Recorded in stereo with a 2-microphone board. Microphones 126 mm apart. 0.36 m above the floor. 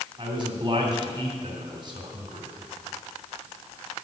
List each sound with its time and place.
0.2 s a man speaking: 40° right (ahead or behind), 2.5 m